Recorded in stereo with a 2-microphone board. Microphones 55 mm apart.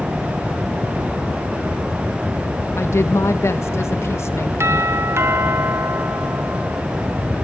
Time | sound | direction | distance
2.8 | a woman speaking | 55° left (ahead or behind) | 2 m
4.6 | a doorbell | 50° right (ahead or behind) | 1.6 m